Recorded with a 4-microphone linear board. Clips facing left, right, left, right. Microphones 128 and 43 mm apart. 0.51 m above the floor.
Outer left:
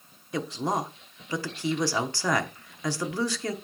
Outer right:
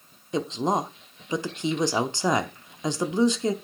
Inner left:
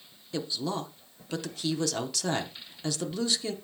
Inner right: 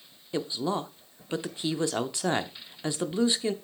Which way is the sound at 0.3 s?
20° right (ahead or behind).